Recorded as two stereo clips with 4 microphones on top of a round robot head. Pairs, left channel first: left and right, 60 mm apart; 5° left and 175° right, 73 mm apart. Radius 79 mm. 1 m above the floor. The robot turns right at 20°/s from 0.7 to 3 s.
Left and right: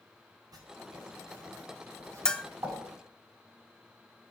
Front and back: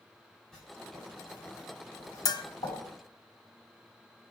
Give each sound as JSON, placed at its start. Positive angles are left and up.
{"t": 0.5, "sound": "writing", "azimuth_deg": -80, "distance_m": 6.5}
{"t": 2.2, "sound": "a bell", "azimuth_deg": 15, "distance_m": 0.8}